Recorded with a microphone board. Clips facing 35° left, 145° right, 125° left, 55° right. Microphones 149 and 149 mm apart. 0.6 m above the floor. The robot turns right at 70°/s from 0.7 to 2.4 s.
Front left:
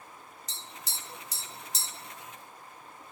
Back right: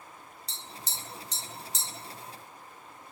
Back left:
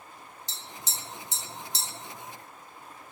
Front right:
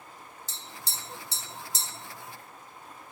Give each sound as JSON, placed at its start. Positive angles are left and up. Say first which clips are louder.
{"t": 0.5, "sound": "tapping", "louder": "back right 2 dB, back left 2 dB", "azimuth_deg": -90, "distance_m": 1.5}